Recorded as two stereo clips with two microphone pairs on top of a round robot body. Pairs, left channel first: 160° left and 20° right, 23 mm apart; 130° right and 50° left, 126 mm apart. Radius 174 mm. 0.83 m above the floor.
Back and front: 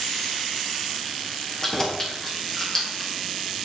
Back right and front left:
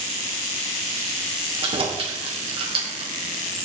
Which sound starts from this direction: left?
Keys jangling, at 1.6 s.